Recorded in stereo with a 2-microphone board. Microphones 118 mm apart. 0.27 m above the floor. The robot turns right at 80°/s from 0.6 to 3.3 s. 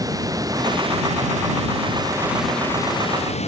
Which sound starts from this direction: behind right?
Running water, at 0.0 s.